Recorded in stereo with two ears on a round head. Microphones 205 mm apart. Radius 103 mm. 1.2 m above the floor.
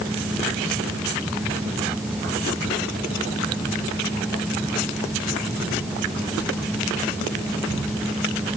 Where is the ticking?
No ticking in this recording.